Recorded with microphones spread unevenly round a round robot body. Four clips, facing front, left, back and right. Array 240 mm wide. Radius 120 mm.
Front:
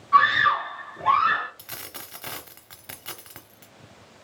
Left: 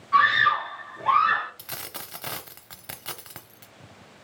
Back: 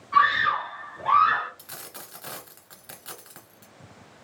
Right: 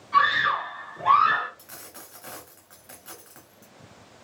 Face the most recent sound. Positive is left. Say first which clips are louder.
# left 6 dB, front 2 dB
turn(degrees=70)